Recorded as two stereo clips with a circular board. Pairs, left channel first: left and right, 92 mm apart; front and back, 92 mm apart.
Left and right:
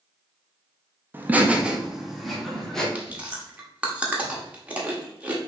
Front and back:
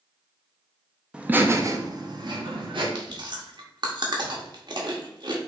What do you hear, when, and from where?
1.1 s laughter: 115° right, 0.7 m; by 2.9 s 175° left, 1.5 m
3.0 s chewing: 165° right, 1.0 m